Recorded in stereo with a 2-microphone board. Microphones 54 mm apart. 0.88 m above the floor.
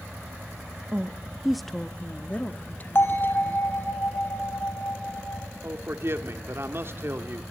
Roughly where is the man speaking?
Right.